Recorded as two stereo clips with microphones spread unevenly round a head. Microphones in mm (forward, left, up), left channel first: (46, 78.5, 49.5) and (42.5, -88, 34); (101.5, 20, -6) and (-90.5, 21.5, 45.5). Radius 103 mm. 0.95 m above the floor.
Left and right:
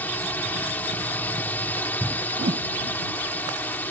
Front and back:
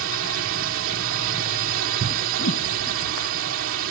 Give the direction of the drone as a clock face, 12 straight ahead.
6 o'clock.